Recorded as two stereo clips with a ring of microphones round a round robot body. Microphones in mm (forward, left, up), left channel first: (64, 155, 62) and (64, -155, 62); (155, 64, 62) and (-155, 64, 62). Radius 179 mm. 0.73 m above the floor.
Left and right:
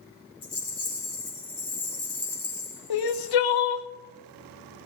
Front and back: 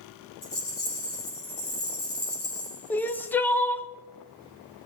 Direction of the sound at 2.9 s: 85° left.